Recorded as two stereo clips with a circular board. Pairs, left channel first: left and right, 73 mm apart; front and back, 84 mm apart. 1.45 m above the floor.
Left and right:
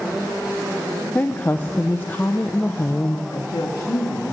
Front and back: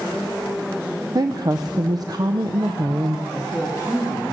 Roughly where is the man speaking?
Left.